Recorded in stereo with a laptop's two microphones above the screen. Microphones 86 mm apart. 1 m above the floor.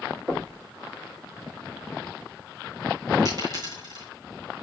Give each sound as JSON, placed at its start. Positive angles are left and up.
{"t": 0.3, "sound": "knocking", "side_deg": -20, "distance_m": 1.5}
{"t": 3.2, "sound": "a dropped coin", "side_deg": -45, "distance_m": 3.0}